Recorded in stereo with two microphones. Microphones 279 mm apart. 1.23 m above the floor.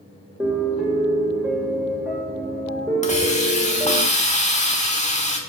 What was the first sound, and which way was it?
A piano, 5° right (ahead or behind).